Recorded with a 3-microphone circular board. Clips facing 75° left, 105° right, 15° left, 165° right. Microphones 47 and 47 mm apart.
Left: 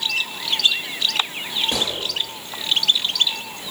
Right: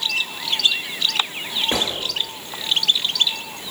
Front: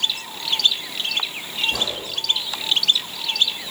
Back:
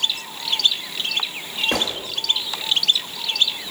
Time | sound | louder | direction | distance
1.7 | a gunshot | right 3 dB, back 2 dB | 165° right | 2 m